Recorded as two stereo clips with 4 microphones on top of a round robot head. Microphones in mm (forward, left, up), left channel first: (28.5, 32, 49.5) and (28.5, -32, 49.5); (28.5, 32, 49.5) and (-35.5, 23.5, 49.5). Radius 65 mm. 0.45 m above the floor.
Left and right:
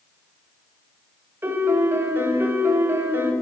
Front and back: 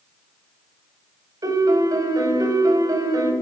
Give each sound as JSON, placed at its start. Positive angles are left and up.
{"t": 1.4, "sound": "a piano", "azimuth_deg": -150, "distance_m": 1.8}